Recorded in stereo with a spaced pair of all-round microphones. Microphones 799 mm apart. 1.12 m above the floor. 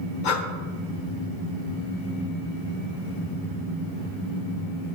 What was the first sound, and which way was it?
Breathing, 70° left (ahead or behind).